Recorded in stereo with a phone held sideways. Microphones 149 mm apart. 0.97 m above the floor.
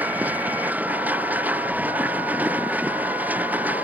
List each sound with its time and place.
0.0 s a machine running: 10° right (ahead or behind)